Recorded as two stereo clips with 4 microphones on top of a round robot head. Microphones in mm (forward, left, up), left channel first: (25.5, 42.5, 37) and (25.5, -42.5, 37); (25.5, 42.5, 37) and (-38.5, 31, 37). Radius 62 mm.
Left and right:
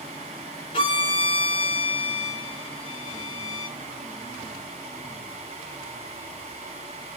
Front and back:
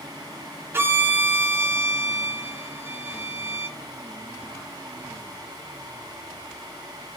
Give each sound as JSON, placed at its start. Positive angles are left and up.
{"t": 0.7, "sound": "a violin", "azimuth_deg": 135, "distance_m": 1.2}